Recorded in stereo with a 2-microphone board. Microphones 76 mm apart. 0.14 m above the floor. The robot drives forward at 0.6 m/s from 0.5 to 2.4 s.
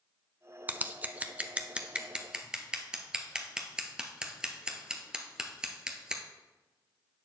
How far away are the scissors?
About 0.5 m.